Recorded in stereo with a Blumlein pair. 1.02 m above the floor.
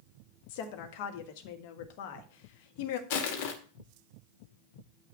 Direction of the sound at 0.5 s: 45° left.